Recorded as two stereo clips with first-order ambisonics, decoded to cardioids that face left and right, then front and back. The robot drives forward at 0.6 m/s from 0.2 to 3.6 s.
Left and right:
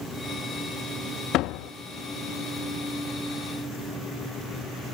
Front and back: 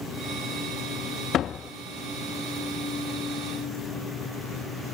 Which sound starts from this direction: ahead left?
A door slam, at 1.3 s.